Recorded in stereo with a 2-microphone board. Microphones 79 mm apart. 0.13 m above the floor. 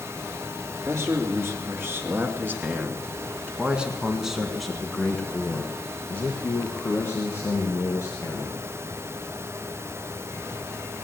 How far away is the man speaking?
About 2.5 m.